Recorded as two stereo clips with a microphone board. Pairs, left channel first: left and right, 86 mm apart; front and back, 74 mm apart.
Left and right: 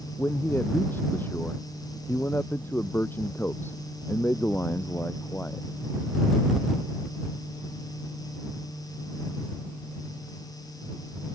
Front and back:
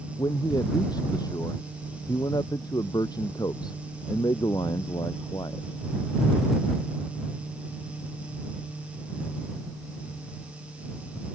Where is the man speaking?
25° left.